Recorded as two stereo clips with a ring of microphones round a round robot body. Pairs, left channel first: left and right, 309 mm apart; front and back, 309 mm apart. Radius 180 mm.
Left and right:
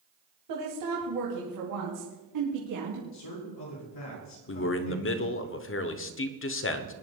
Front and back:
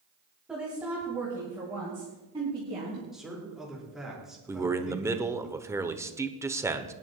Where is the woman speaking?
95° right, 2.5 m; by 3.0 s 110° right, 4 m.